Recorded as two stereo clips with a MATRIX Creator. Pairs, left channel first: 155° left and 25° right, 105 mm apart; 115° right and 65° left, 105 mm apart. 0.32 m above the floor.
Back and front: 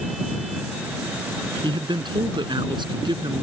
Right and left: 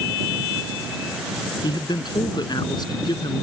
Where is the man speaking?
65° right.